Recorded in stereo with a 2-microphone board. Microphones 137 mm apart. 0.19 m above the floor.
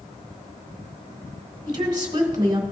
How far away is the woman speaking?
About 1.1 m.